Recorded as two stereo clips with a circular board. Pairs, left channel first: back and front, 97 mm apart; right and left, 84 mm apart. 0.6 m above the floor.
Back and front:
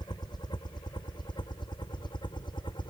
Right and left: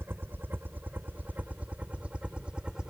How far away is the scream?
No scream in this recording.